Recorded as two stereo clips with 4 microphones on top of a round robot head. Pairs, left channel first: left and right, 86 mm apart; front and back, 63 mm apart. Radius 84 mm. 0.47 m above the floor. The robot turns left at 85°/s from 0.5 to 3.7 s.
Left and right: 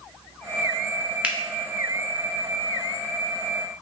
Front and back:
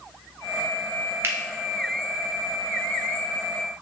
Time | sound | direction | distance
1.2 | a finger snap | 160° right | 0.9 m